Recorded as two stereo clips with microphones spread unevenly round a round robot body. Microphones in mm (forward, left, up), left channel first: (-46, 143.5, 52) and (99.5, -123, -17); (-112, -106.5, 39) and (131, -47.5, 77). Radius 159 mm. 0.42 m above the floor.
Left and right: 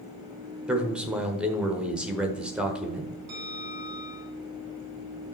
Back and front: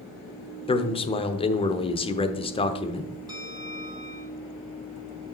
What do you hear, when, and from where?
0.7 s a man speaking: 130° right, 1.0 m
3.3 s a bell: 60° right, 2.5 m